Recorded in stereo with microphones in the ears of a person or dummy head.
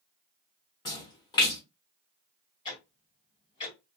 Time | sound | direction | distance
0.8 | a splash | 25° left (ahead or behind) | 0.6 m
2.6 | ticking | 25° left (ahead or behind) | 1.4 m